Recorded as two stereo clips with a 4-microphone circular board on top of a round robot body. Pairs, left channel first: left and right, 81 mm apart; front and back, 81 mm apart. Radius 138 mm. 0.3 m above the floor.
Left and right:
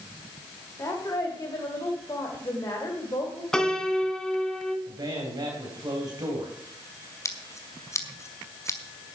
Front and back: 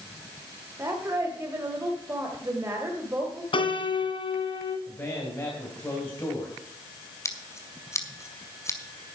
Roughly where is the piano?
Ahead.